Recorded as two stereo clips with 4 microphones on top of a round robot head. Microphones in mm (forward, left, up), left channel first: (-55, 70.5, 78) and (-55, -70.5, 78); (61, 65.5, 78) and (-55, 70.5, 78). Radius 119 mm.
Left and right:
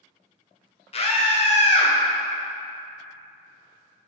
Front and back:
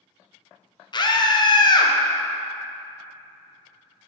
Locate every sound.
0.9 s a scream: 45° left, 0.6 m